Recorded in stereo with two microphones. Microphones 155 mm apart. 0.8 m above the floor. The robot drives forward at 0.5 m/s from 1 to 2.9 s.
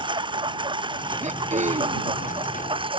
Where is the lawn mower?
30° right (ahead or behind); by 3.0 s 35° right (ahead or behind).